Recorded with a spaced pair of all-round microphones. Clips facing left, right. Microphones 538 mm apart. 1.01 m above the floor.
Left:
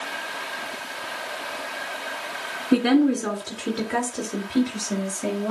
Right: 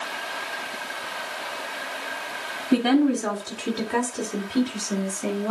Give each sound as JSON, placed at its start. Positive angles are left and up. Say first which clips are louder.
{"t": 2.7, "sound": "a woman speaking", "louder": "left 1 dB", "side_deg": 5, "distance_m": 2.5}